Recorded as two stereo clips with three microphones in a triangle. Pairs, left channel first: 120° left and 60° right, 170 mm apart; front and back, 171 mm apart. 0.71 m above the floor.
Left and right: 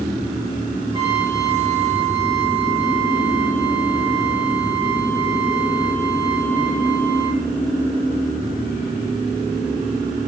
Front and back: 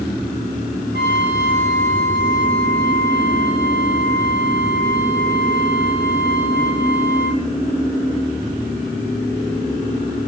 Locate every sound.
0.9 s a trumpet: straight ahead, 7.5 m